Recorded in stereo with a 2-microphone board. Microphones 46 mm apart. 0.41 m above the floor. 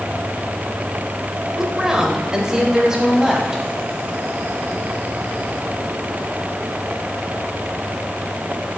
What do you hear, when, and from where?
1.6 s a woman speaking: 15° right (ahead or behind), 1.2 m